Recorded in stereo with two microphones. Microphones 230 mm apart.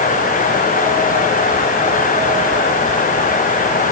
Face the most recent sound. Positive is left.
No sound to turn to.